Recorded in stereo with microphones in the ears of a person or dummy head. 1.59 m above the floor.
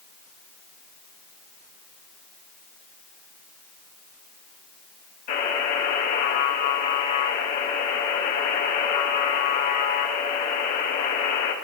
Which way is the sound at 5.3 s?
45° left (ahead or behind).